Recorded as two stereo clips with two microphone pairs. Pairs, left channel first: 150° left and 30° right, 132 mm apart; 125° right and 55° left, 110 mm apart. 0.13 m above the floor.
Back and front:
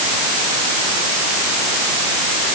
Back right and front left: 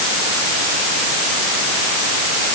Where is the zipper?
No zipper in this recording.